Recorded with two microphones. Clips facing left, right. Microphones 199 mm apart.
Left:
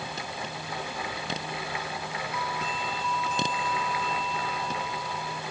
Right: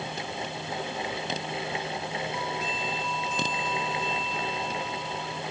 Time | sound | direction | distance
2.3 | a doorbell | 65° left (ahead or behind) | ?